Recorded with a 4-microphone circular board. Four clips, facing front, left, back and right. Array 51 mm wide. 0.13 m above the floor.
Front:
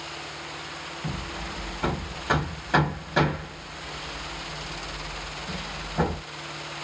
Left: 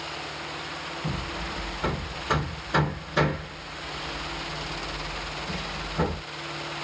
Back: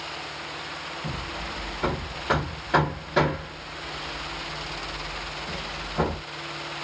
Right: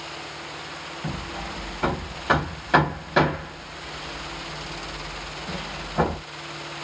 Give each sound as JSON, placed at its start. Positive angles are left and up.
{"t": 1.0, "sound": "hammering", "azimuth_deg": -90, "distance_m": 2.0}